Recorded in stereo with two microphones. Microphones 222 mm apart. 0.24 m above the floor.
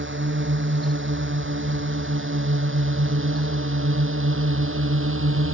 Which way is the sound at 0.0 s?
60° right (ahead or behind).